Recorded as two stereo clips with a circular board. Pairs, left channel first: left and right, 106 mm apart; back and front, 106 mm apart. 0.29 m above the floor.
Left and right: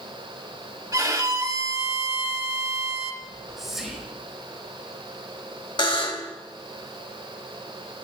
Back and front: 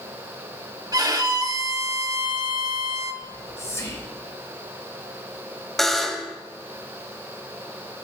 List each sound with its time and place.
0.9 s a violin: 40° right, 0.7 m
3.2 s whispering: 175° right, 0.9 m
5.8 s a buzzer: 95° left, 0.8 m